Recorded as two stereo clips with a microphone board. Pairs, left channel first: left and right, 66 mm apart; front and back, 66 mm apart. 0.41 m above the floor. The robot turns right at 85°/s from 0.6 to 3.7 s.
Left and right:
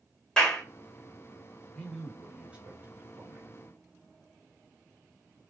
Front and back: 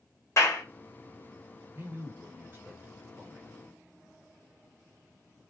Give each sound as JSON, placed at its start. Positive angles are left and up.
{"t": 0.4, "sound": "a clap", "azimuth_deg": 15, "distance_m": 1.3}
{"t": 1.8, "sound": "a man speaking", "azimuth_deg": 150, "distance_m": 1.0}